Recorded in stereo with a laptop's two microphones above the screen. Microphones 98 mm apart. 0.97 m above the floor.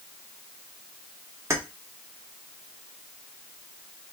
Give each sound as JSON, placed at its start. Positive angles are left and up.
{"t": 1.5, "sound": "keys jangling", "side_deg": -30, "distance_m": 1.1}